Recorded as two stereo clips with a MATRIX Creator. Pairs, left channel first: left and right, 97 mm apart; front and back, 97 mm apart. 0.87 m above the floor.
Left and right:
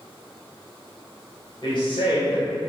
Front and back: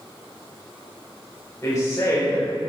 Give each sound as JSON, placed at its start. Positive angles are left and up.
{"t": 1.6, "sound": "a woman speaking", "azimuth_deg": 60, "distance_m": 3.0}